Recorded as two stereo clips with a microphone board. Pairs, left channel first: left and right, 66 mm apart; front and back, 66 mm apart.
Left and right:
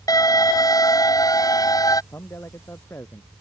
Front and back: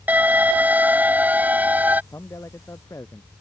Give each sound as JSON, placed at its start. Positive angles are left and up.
{"t": 0.1, "sound": "an alarm", "azimuth_deg": 115}
{"t": 2.1, "sound": "a man speaking", "azimuth_deg": 40}